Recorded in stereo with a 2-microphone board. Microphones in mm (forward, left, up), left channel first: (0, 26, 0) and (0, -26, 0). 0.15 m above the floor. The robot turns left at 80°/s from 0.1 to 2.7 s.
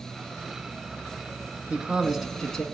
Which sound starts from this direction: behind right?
A man speaking, at 1.7 s.